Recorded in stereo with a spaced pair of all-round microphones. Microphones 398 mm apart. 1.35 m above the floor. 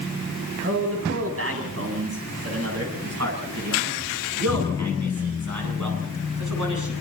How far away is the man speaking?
About 9 m.